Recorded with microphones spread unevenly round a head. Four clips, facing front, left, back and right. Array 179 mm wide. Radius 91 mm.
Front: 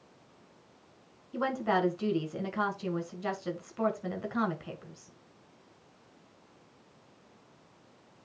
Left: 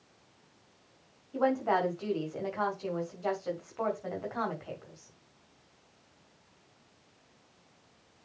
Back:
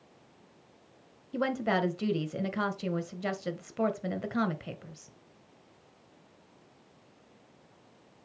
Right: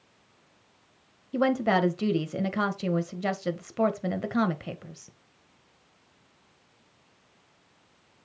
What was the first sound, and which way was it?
A woman speaking, 115° right.